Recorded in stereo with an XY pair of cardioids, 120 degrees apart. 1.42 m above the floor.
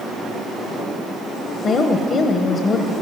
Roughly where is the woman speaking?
Ahead left.